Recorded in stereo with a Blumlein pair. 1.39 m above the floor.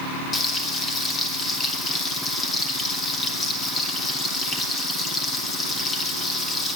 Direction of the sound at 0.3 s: 20° left.